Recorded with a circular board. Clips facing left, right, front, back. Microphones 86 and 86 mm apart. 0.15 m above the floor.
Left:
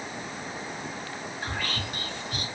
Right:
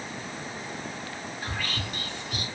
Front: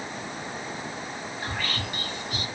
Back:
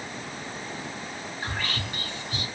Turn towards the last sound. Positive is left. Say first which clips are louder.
# left 1 dB, even
turn(degrees=140)